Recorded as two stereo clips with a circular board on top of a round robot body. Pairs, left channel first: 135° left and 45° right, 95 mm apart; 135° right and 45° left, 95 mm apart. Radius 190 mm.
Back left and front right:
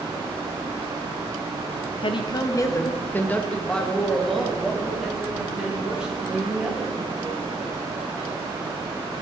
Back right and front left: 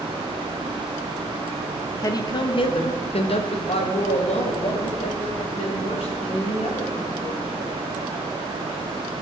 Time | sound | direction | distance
2.0 | a woman speaking | 170° left | 0.7 m